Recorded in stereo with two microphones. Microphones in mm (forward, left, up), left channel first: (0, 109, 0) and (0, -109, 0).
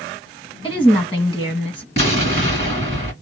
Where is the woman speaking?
20° left (ahead or behind), 1.9 m.